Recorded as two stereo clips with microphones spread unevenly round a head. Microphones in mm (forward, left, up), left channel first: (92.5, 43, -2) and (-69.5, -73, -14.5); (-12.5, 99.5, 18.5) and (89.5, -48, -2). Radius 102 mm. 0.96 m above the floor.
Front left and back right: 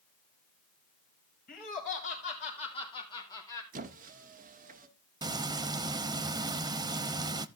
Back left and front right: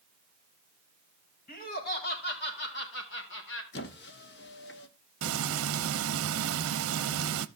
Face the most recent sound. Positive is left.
turn(degrees=-75)